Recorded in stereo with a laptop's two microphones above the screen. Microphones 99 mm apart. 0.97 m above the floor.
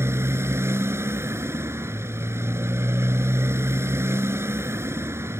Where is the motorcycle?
25° right (ahead or behind).